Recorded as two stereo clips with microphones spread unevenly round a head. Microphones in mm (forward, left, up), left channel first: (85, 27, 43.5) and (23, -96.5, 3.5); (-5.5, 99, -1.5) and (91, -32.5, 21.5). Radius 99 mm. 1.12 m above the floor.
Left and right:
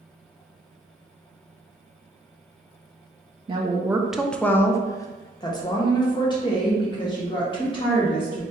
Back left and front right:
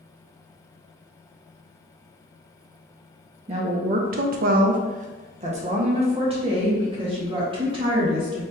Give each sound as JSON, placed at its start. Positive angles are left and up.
{"t": 3.5, "sound": "a woman speaking", "azimuth_deg": -110, "distance_m": 0.5}